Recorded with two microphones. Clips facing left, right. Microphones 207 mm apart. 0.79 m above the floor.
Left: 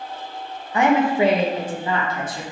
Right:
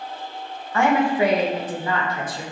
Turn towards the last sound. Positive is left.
turn(degrees=25)  # may be behind; listen again after turning